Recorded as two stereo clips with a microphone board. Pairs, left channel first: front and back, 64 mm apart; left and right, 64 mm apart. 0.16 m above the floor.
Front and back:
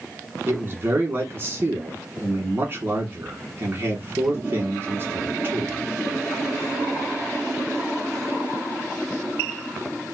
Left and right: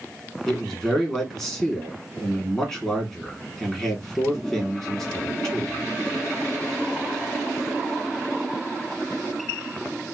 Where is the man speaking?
170° left, 1.3 m.